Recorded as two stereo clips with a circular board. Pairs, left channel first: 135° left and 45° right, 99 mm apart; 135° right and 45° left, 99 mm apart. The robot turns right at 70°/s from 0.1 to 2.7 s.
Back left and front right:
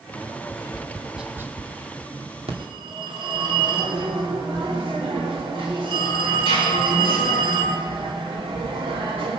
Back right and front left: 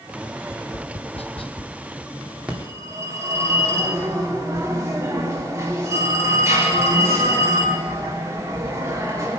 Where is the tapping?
Straight behind, 0.6 m; by 1.7 s 90° right, 0.6 m.